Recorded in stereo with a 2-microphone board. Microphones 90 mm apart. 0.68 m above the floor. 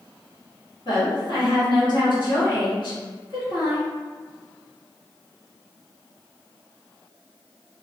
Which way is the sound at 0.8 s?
60° left (ahead or behind).